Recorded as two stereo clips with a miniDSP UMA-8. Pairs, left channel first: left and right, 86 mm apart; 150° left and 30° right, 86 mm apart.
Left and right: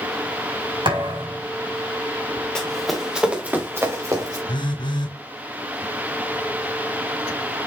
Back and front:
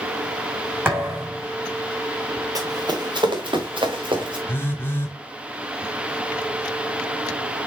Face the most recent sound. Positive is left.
turn(degrees=90)